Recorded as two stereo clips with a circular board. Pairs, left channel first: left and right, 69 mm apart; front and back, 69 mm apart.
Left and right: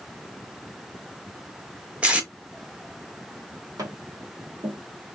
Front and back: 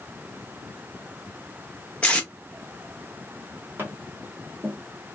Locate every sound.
2.0 s tape being pulled: 45° right, 0.8 m
3.8 s tapping: 120° right, 1.2 m